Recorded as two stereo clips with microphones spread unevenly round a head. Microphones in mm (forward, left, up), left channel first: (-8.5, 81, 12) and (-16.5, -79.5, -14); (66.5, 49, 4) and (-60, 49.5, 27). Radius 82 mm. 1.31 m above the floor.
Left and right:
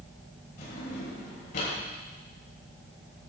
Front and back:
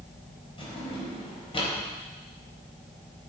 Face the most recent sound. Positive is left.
turn(degrees=50)